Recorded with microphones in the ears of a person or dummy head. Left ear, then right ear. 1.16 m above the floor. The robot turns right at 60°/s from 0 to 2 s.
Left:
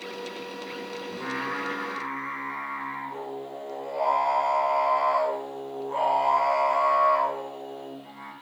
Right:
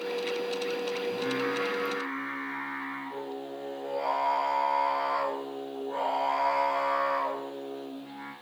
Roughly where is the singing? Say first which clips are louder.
Left 2 dB; ahead left.